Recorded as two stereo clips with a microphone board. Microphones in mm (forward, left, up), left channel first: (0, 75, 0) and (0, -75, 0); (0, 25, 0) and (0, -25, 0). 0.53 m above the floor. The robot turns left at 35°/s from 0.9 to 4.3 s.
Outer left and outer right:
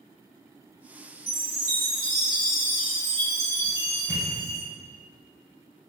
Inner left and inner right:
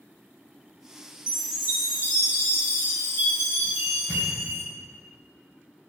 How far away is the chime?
About 1.1 m.